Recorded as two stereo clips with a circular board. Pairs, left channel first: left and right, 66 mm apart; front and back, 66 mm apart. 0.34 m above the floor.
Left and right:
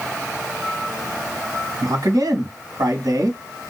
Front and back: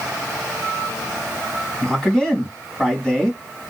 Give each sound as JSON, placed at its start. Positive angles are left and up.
{"t": 1.8, "sound": "a man speaking", "azimuth_deg": -80, "distance_m": 2.5}